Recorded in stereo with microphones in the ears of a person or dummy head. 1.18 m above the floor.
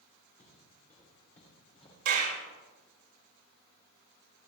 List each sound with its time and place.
0.4 s footsteps: 35° left (ahead or behind), 7.5 m
2.0 s a clap: 65° right (ahead or behind), 3 m